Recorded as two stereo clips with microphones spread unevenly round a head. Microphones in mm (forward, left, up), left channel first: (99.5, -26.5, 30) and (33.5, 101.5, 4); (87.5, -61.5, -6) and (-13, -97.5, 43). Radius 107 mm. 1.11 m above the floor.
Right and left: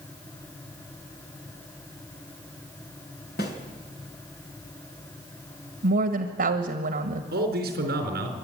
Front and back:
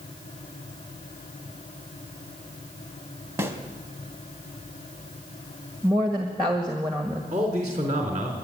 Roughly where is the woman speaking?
Behind left.